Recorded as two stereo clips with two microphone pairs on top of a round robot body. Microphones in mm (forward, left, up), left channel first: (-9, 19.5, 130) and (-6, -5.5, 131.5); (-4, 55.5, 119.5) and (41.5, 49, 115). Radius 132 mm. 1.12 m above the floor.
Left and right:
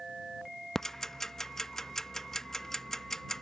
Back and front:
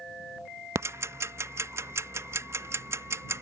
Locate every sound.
0.8 s ticking: 20° left